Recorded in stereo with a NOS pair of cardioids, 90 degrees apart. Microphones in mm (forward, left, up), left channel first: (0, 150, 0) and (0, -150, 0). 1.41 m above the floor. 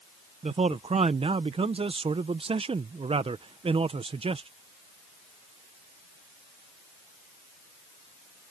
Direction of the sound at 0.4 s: 20° right.